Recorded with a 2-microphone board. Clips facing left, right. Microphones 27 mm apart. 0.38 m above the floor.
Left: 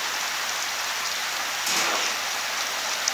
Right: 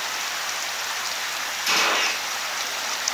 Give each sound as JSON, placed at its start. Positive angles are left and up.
{"t": 1.7, "sound": "a gunshot", "side_deg": -35, "distance_m": 1.1}